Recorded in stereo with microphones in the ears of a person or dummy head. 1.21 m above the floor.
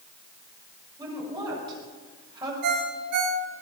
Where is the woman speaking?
20° right (ahead or behind), 6.5 m.